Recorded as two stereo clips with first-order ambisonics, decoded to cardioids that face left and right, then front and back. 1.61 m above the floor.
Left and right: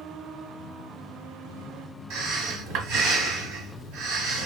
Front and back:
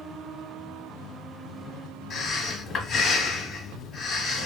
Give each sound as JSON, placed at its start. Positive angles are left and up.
{"t": 2.1, "sound": "breathing", "azimuth_deg": -70, "distance_m": 1.2}